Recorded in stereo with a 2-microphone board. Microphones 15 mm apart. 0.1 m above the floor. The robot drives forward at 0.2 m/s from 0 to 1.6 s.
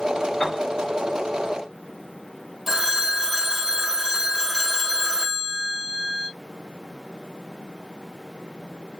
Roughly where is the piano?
Left.